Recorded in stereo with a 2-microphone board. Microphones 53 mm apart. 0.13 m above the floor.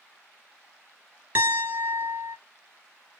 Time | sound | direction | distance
1.4 | a piano | 35° right (ahead or behind) | 1.8 m